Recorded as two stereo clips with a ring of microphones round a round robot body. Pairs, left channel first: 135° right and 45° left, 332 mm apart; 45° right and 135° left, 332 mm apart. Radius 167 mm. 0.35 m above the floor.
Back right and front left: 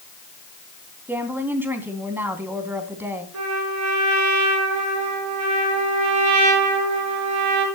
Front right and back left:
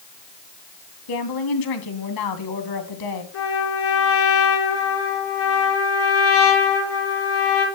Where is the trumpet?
5° left, 6 m.